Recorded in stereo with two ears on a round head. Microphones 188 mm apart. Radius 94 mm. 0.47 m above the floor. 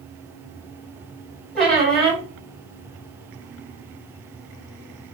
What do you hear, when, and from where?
1.6 s a squeak: centre (ahead or behind), 1.2 m